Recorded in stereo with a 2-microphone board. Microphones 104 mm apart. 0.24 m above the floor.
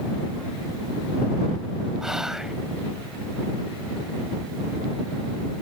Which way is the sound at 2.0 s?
5° right (ahead or behind).